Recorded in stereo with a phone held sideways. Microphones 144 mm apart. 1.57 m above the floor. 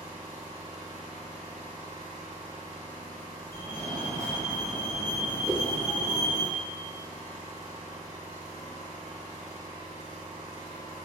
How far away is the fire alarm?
About 1.2 m.